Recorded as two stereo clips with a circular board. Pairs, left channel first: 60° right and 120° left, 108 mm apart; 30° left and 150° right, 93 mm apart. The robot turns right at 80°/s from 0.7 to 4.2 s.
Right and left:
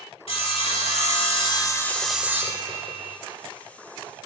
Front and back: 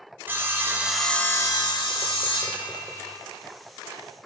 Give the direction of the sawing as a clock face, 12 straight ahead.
3 o'clock.